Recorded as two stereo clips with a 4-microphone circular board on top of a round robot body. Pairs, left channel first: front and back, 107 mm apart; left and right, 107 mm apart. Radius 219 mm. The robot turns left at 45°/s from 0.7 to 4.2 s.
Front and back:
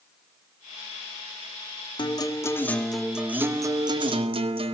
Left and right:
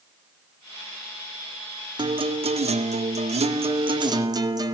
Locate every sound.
2.0 s a guitar: 45° right, 2 m; by 4.7 s 145° right, 2 m